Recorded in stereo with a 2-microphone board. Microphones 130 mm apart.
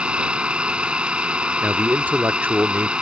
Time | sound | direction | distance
0.0 | an engine running | 10° right (ahead or behind) | ?
1.6 | a man speaking | 15° right (ahead or behind) | ?